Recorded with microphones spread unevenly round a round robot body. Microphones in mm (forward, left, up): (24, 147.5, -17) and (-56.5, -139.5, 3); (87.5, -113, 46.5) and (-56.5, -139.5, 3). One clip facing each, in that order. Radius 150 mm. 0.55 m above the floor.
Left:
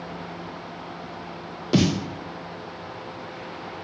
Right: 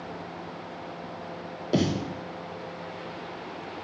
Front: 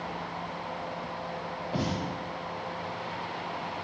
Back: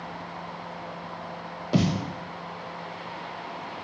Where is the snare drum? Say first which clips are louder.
Left 4 dB, back 7 dB; 145° left, 0.6 m.